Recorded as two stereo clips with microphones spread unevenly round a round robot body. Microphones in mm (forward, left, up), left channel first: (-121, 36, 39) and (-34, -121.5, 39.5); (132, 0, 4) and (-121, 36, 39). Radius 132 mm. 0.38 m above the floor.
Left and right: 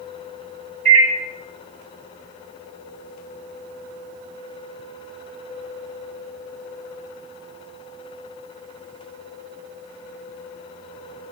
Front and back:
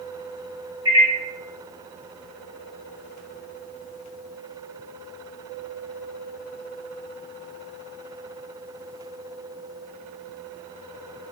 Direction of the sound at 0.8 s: 110° right.